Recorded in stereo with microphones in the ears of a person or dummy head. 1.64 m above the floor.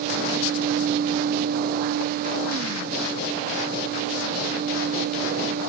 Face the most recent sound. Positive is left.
No sound to turn to.